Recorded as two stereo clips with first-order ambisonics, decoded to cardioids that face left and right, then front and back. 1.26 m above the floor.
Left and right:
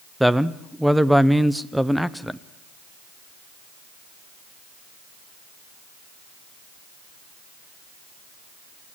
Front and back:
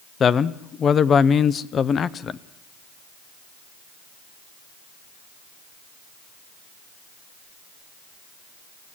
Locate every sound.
0.2 s a man speaking: 5° right, 0.5 m